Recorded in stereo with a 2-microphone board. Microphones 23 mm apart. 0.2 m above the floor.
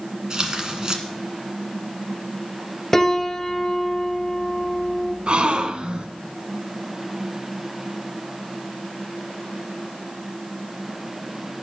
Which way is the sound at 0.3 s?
35° right (ahead or behind).